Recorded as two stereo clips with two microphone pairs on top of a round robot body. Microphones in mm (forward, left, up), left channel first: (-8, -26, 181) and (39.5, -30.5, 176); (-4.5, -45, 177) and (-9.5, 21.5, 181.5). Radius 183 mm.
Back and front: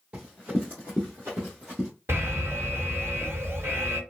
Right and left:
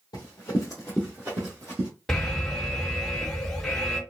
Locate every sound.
0.1 s running footsteps: 65° right, 1.1 m; by 1.9 s 70° left, 1.1 m
2.1 s an alarm: 5° right, 1.9 m